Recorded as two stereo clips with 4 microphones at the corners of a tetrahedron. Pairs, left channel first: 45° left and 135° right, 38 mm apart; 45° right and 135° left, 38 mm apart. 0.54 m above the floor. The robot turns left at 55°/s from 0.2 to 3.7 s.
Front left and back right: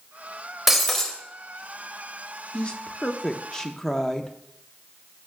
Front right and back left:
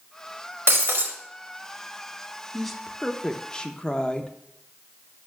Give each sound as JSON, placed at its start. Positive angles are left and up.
{"t": 0.7, "sound": "breaking glass", "azimuth_deg": 145, "distance_m": 1.1}
{"t": 2.5, "sound": "a woman speaking", "azimuth_deg": 40, "distance_m": 0.6}